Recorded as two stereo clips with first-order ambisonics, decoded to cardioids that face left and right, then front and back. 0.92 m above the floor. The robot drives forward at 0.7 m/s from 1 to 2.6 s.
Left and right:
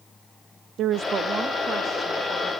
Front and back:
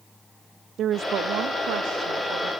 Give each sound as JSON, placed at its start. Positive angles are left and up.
{"t": 0.8, "sound": "a woman speaking", "azimuth_deg": -130, "distance_m": 0.5}